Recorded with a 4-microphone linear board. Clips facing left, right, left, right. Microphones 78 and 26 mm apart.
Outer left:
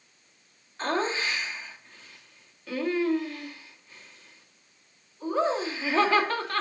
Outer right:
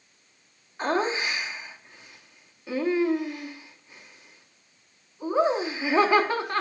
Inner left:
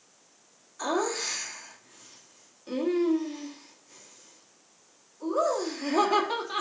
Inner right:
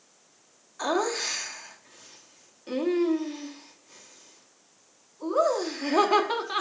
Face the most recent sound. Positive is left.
turn(degrees=-15)  # may be behind; listen again after turning